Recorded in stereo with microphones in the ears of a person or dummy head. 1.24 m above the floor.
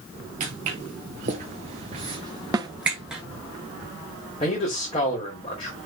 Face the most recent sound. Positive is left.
turn(degrees=25)  # may be behind; listen again after turning